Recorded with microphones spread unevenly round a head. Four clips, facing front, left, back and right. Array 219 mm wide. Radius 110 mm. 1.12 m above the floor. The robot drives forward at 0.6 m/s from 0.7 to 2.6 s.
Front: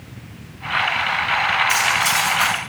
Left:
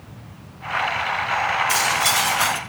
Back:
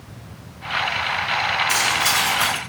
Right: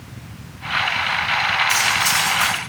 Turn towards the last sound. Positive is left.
turn(degrees=155)